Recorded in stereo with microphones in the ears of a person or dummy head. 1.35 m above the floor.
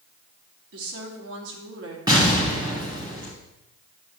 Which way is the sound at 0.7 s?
80° right.